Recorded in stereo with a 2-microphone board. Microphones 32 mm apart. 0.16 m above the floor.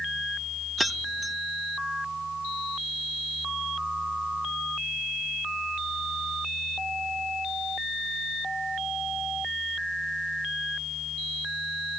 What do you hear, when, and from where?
0.8 s keys jangling: centre (ahead or behind)